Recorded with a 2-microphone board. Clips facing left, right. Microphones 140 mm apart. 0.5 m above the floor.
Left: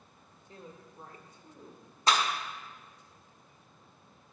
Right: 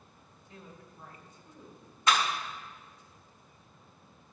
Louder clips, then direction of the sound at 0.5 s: Left 2 dB; 40° left (ahead or behind).